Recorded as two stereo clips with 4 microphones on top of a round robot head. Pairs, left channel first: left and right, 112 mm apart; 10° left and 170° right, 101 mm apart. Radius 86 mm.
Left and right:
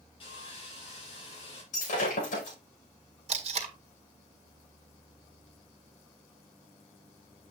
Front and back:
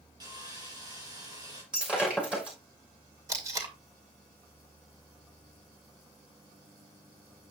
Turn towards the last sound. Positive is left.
turn(degrees=-110)